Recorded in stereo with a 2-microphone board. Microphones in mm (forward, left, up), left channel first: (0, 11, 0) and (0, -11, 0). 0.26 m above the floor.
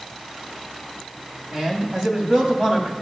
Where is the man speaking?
35° right (ahead or behind), 2.0 m.